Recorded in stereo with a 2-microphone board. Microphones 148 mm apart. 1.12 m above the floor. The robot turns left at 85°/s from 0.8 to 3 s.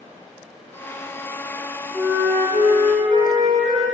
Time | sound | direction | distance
1.9 | a flute | 5° right | 3 m